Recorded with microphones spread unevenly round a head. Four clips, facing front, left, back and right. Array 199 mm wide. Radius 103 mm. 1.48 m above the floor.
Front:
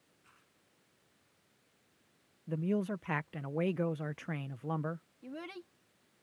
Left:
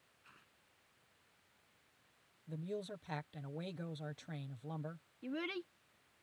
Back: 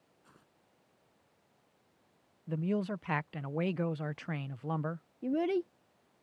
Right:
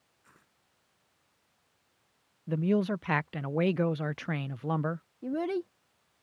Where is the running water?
No running water in this recording.